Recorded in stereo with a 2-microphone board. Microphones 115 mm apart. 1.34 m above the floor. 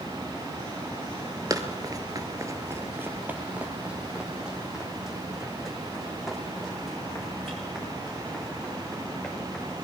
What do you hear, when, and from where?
1.5 s running footsteps: 30° right (ahead or behind), 1.7 m; by 9.7 s centre (ahead or behind), 10.5 m